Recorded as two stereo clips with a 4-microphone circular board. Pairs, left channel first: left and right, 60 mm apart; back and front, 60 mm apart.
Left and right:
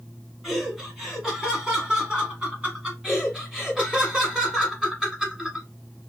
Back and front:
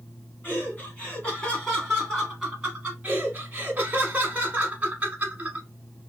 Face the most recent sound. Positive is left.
turn(degrees=-25)